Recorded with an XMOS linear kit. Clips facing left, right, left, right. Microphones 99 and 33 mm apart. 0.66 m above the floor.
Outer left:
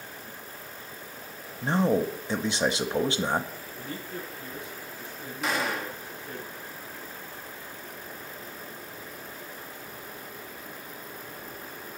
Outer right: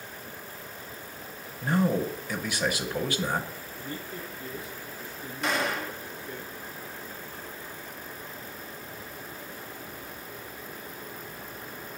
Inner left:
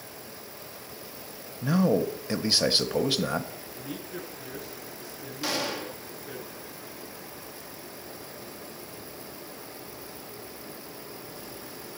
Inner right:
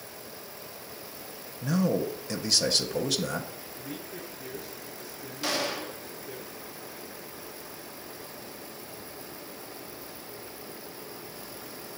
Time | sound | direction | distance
1.6 | a man speaking | 25° left (ahead or behind) | 0.7 m
3.8 | a man speaking | 70° left (ahead or behind) | 5.5 m
5.4 | a gunshot | centre (ahead or behind) | 0.8 m